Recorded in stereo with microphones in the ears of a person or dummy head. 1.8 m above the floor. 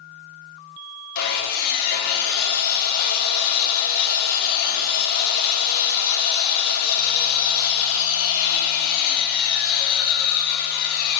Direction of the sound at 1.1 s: 55° left (ahead or behind).